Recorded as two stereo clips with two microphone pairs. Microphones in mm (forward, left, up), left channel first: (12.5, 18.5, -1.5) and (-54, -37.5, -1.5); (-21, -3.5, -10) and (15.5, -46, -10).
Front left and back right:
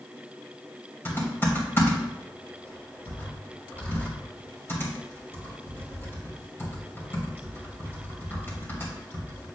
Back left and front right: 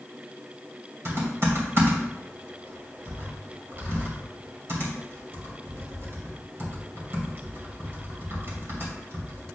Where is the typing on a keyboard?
20° right, 2.5 m.